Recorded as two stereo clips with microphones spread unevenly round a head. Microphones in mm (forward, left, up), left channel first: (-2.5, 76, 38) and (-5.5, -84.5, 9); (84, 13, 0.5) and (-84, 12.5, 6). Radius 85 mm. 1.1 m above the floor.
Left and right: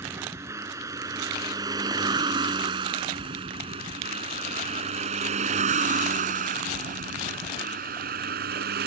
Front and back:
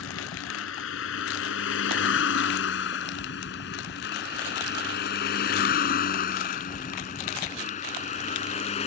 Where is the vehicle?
15° right; by 8.9 s 55° right.